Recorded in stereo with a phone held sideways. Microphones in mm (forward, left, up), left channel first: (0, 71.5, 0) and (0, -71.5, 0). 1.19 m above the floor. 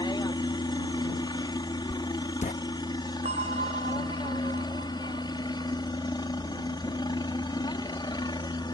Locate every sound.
0.0 s a helicopter: 30° left (ahead or behind)
1.9 s writing: 55° left (ahead or behind)
3.2 s a bell: 50° right (ahead or behind)